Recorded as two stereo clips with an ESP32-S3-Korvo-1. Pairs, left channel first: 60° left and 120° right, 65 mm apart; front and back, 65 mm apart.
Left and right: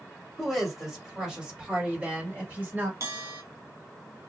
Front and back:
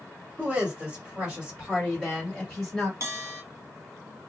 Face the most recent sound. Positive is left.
turn(degrees=-145)